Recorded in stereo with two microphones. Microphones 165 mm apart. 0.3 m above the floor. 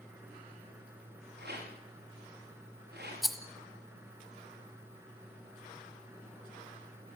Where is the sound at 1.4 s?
80° right, 9 m.